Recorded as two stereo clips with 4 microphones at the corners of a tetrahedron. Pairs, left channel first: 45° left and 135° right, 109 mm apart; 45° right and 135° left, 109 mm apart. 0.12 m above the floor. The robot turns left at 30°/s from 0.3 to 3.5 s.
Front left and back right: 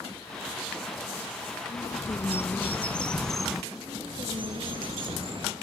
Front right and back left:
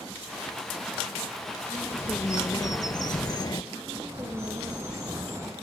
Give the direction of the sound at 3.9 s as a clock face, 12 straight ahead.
5 o'clock.